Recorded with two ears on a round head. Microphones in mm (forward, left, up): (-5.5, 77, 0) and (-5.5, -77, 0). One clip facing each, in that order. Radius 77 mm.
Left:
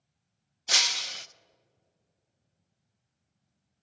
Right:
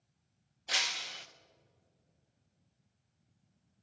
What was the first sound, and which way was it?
Breaking glass, 55° left (ahead or behind).